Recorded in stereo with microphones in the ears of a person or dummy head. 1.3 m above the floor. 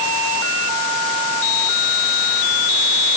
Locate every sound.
Only background noise.